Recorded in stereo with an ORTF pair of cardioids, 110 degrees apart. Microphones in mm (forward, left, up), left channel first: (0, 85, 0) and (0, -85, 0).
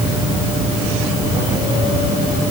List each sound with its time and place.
Only background noise.